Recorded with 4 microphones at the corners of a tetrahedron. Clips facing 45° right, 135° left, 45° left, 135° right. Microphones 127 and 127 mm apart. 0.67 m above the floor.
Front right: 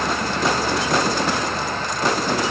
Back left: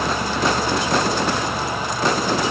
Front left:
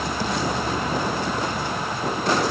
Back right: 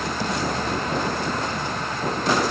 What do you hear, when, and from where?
Only background noise.